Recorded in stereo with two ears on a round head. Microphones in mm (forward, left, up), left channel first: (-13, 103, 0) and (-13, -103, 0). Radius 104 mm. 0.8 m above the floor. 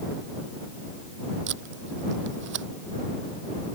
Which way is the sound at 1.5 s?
55° right (ahead or behind).